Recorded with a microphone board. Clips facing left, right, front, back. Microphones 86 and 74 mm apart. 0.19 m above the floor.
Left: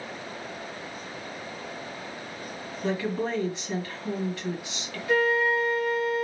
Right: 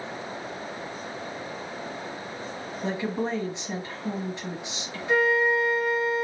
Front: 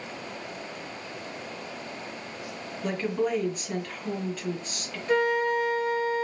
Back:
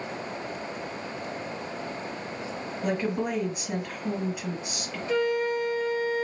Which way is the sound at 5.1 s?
30° right.